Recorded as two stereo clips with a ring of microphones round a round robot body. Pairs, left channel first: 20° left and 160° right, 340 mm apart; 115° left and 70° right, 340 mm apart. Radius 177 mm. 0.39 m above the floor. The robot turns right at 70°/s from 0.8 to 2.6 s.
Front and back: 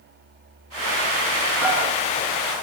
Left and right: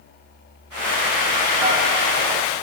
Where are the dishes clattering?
110° right, 4.5 m; by 1.8 s 95° right, 4.5 m.